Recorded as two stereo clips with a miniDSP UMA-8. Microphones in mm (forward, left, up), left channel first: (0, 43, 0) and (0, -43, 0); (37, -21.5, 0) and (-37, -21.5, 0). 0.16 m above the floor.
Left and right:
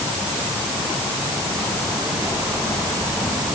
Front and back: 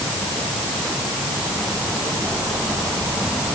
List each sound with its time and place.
Only background noise.